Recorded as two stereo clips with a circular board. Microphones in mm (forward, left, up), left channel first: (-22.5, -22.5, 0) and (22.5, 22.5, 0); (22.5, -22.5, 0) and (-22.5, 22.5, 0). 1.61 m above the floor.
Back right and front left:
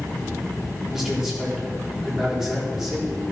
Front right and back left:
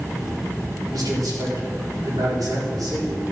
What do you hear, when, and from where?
0.9 s a man speaking: 125° left, 4 m